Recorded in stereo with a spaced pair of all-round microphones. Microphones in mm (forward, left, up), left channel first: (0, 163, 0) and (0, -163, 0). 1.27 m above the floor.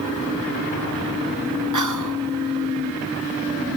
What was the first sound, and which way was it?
Whispering, 65° right (ahead or behind).